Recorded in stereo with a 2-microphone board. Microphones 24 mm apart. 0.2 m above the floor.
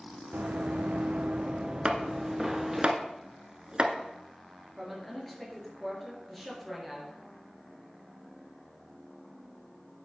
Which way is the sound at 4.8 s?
5° left (ahead or behind).